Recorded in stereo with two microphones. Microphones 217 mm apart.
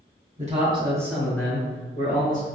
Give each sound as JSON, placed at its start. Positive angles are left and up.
{"t": 0.4, "sound": "a man speaking", "side_deg": -35, "distance_m": 1.4}